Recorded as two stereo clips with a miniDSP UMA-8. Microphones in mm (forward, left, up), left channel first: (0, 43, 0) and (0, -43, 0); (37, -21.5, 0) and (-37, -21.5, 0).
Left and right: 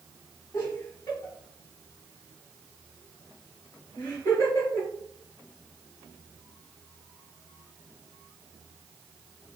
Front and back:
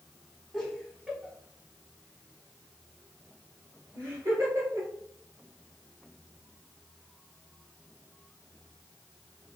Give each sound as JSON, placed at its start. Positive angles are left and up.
{"t": 0.5, "sound": "laughter", "azimuth_deg": 85, "distance_m": 1.2}